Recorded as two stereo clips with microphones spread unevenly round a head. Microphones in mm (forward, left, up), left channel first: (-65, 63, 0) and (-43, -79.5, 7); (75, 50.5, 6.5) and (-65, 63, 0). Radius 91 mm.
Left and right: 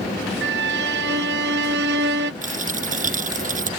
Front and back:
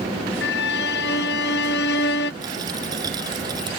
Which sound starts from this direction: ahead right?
A violin, at 0.4 s.